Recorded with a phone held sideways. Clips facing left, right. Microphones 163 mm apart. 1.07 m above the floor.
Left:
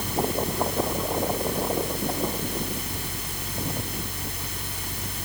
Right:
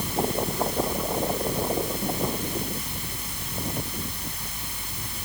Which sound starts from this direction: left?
A fan, at 0.0 s.